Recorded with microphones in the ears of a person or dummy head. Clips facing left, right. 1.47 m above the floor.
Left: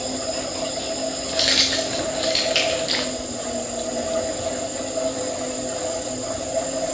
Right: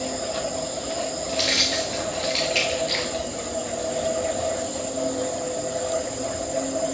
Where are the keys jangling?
10° left (ahead or behind), 0.5 m.